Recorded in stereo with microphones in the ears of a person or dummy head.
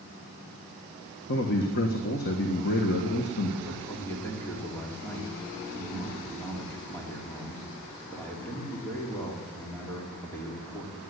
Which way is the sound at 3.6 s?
10° left (ahead or behind).